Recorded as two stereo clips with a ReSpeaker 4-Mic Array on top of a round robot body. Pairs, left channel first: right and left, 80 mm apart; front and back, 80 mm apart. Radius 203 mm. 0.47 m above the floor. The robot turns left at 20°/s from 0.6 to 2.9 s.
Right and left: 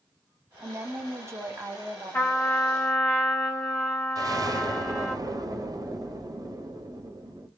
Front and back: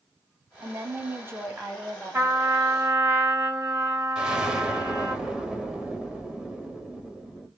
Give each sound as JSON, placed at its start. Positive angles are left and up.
{"t": 0.6, "sound": "a woman speaking", "azimuth_deg": 145, "distance_m": 1.3}
{"t": 2.1, "sound": "a trumpet", "azimuth_deg": -140, "distance_m": 1.7}
{"t": 4.2, "sound": "an explosion", "azimuth_deg": 100, "distance_m": 1.1}